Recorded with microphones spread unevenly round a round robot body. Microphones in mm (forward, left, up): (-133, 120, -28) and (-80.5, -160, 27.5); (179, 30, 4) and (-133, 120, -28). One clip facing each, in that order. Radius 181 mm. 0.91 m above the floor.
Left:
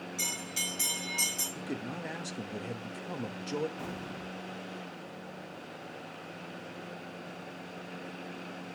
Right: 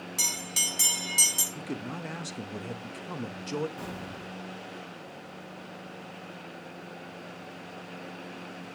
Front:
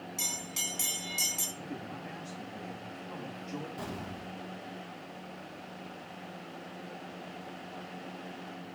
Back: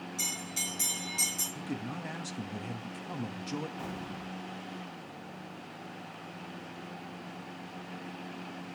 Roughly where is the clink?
I don't hear a clink.